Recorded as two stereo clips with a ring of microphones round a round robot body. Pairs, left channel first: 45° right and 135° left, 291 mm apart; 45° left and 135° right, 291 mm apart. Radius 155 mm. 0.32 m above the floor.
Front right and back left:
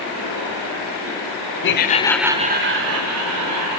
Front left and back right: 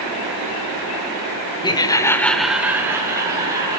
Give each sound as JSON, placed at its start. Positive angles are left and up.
{"t": 1.6, "sound": "laughter", "azimuth_deg": -25, "distance_m": 1.1}